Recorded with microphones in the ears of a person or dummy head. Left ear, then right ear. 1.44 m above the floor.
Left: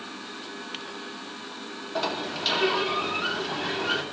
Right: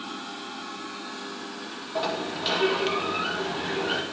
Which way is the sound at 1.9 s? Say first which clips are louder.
Even; 20° left (ahead or behind).